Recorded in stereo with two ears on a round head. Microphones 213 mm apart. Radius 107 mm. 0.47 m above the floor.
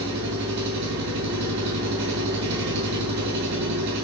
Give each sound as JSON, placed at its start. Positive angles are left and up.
{"t": 0.0, "sound": "an engine running", "side_deg": -80, "distance_m": 5.5}